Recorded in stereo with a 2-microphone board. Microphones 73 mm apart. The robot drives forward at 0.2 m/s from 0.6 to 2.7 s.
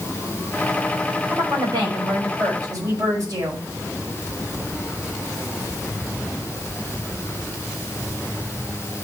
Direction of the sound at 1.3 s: 60° right (ahead or behind).